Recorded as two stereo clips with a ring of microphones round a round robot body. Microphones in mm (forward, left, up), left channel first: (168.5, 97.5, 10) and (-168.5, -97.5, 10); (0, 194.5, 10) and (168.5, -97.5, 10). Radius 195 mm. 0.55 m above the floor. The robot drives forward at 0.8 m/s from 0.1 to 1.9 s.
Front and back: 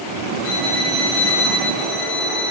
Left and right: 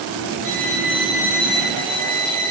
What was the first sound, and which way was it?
A violin, 15° right.